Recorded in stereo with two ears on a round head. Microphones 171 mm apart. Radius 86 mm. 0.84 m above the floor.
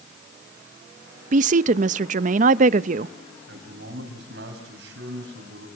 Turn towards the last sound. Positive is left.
turn(degrees=-65)  # may be behind; listen again after turning